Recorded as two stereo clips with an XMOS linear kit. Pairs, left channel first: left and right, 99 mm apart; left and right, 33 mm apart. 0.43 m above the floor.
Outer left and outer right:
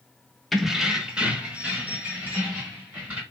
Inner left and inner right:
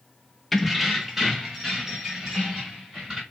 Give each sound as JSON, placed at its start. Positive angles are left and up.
{"t": 0.5, "sound": "keys jangling", "side_deg": 0, "distance_m": 0.5}